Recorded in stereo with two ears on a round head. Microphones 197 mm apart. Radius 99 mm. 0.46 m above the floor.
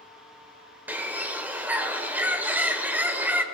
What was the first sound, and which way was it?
A bird, 10° right (ahead or behind).